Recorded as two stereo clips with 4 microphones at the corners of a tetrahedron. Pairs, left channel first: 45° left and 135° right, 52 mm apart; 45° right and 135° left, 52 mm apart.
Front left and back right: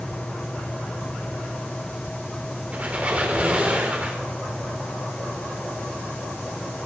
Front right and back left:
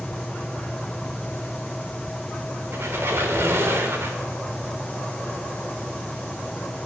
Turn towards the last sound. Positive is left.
turn(degrees=165)